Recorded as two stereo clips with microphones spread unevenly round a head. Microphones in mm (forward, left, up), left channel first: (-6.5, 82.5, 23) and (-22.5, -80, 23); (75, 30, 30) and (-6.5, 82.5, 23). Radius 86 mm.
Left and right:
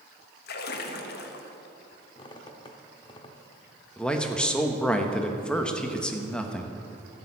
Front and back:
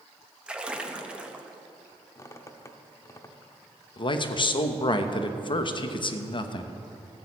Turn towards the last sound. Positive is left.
turn(degrees=0)